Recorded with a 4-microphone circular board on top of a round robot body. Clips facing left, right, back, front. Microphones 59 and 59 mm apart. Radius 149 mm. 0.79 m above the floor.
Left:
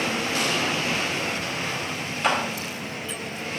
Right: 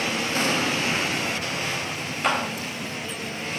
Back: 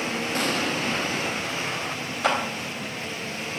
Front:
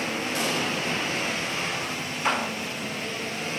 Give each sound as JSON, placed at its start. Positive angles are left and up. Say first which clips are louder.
{"t": 0.3, "sound": "an explosion", "louder": "right 3 dB, back 2 dB", "azimuth_deg": -145, "distance_m": 1.9}
{"t": 2.2, "sound": "a clap", "louder": "left 1 dB, back 2 dB", "azimuth_deg": 180, "distance_m": 4.0}